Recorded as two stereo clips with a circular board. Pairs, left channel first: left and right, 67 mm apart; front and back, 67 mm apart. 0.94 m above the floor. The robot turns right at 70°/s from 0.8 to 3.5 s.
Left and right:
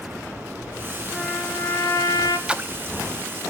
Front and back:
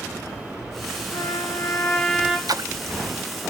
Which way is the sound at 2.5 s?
165° right.